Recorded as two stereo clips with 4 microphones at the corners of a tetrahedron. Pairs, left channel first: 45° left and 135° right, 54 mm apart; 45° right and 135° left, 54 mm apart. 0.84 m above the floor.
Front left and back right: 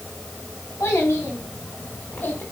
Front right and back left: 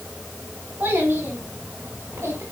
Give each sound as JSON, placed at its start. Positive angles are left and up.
{"t": 0.8, "sound": "a child speaking", "azimuth_deg": 80, "distance_m": 5.5}